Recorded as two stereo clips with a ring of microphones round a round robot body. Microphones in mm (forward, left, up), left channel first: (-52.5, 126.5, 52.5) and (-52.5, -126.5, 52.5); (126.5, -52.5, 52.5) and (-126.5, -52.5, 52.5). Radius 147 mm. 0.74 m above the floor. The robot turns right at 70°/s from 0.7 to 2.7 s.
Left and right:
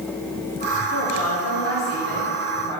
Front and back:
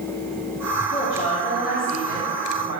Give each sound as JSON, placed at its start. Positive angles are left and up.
{"t": 0.9, "sound": "a woman speaking", "azimuth_deg": 40, "distance_m": 2.5}